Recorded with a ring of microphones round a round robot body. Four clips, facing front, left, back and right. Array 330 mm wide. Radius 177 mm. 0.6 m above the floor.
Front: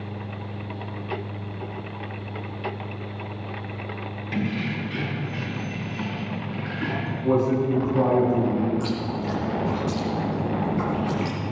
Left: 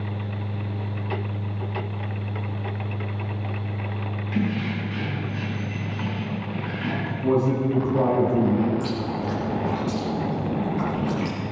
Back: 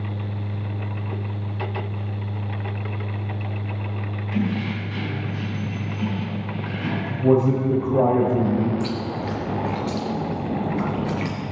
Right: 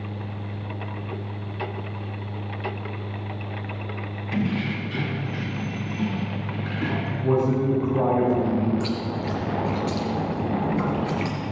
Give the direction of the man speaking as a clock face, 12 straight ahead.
6 o'clock.